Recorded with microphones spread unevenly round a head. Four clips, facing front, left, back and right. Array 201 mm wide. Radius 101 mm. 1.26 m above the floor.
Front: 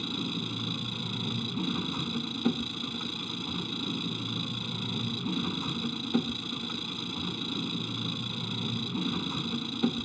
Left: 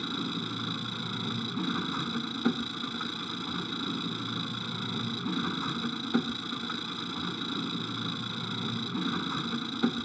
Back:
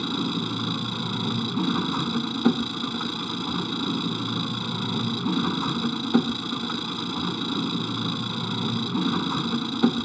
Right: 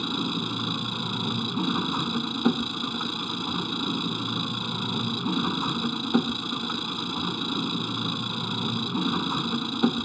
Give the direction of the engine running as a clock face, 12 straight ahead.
5 o'clock.